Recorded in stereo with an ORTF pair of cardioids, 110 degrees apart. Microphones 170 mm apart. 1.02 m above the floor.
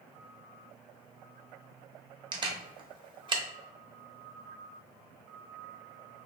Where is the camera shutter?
30° right, 0.8 m.